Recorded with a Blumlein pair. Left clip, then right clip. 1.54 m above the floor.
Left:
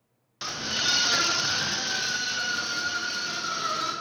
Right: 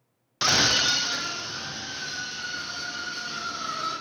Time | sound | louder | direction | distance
0.4 | a scream | right 7 dB | 65° right | 0.6 m